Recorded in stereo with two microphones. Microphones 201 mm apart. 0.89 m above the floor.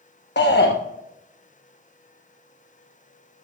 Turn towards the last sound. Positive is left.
turn(degrees=60)  # may be behind; listen again after turning